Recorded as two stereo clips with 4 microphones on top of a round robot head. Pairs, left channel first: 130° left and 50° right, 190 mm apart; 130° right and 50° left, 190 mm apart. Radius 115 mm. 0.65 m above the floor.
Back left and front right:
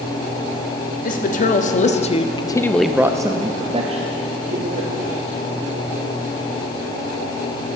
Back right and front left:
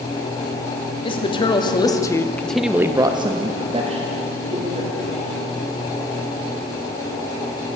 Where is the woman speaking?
170° left, 1.4 m; by 5.2 s 5° right, 2.0 m.